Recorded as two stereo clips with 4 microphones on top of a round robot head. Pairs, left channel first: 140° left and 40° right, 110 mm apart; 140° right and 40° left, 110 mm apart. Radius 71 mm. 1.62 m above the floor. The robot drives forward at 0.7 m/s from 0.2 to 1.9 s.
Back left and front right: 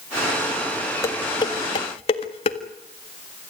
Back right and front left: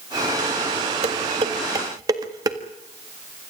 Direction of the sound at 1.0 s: 75° left.